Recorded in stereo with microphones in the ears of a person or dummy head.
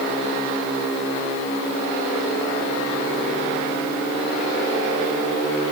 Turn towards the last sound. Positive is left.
No sound to turn to.